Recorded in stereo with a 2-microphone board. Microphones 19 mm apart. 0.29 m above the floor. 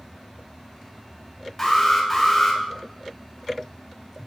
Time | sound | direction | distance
1.6 | an alarm | 5° left (ahead or behind) | 1.6 m